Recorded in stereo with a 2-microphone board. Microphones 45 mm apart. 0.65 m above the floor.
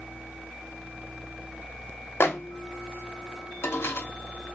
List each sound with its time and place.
2.2 s a microwave: 65° left (ahead or behind), 0.8 m